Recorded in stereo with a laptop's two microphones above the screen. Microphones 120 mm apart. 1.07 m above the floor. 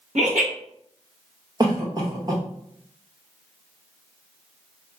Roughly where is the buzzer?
No buzzer in this recording.